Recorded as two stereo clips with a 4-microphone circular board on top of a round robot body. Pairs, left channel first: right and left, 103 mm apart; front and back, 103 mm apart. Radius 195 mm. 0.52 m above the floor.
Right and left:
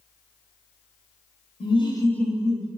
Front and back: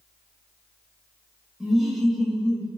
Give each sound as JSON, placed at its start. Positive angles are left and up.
{"t": 1.6, "sound": "laughter", "azimuth_deg": -90, "distance_m": 1.0}